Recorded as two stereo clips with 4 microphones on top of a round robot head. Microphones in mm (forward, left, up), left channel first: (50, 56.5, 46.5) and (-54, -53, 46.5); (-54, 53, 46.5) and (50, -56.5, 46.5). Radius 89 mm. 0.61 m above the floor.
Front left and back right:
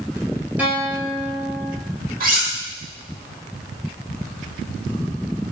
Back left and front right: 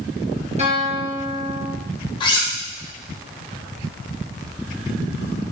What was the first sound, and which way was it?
A guitar, 55° right.